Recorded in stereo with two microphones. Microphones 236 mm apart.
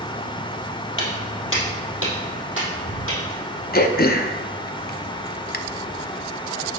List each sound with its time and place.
1.0 s footsteps: 55° left (ahead or behind), 2.0 m; by 3.6 s 60° left (ahead or behind), 3.5 m
3.7 s throat clearing: 40° left (ahead or behind), 0.5 m